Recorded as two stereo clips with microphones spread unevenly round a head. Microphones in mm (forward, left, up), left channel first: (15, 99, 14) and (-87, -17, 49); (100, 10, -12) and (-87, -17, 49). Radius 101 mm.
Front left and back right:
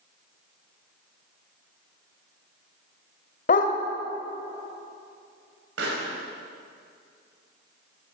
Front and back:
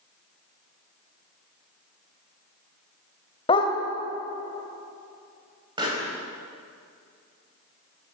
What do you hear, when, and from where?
3.5 s a dog barking: 85° left, 2.5 m
5.8 s a pop: 105° right, 6 m